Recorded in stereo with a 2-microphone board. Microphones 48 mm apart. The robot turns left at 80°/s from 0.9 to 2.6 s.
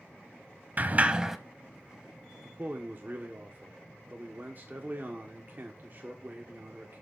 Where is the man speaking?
45° right (ahead or behind), 1.2 m.